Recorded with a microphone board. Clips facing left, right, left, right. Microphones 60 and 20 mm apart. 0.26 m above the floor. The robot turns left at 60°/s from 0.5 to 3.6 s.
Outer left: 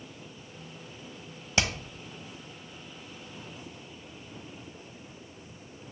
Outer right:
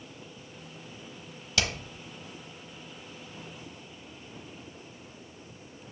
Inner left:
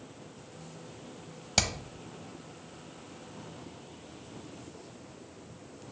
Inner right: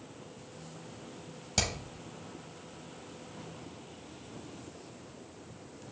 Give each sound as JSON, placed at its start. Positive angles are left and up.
{"t": 1.6, "sound": "hammering", "side_deg": 30, "distance_m": 0.9}